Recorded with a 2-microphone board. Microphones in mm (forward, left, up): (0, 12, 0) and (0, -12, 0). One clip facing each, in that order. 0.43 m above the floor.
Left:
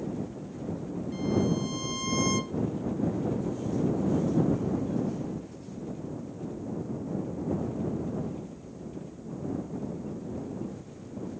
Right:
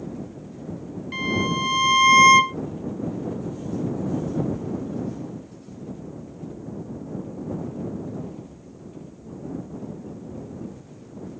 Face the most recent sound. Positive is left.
turn(degrees=-80)